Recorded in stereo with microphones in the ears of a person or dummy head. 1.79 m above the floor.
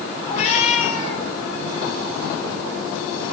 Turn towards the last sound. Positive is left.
turn(degrees=45)  # may be behind; listen again after turning